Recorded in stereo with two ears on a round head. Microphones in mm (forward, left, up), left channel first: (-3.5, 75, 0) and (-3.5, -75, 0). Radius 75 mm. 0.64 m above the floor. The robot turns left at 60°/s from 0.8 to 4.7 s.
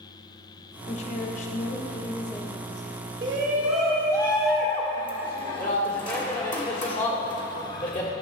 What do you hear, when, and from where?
0.9 s a woman speaking: 115° left, 1.0 m; by 2.9 s 5° right, 1.0 m
3.2 s a shout: 145° right, 1.6 m; by 8.1 s 125° left, 1.6 m